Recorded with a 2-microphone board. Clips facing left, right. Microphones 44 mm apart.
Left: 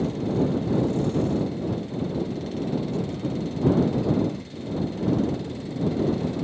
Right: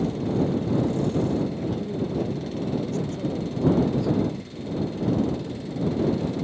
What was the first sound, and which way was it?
A man speaking, 55° right (ahead or behind).